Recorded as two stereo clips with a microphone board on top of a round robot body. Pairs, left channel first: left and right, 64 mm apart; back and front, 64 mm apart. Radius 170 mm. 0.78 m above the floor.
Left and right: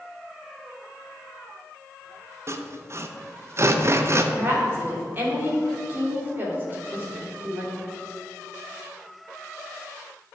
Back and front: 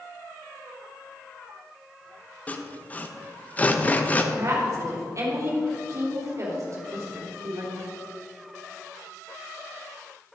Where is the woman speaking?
35° right, 3 m.